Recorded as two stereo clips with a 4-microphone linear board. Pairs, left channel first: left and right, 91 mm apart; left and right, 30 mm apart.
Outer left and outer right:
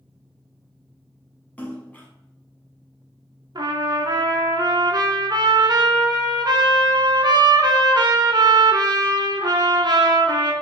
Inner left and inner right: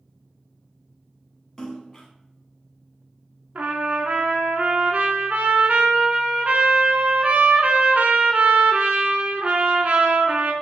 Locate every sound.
1.6 s a splash: 20° left (ahead or behind), 1.0 m
3.5 s a trumpet: 50° right (ahead or behind), 0.6 m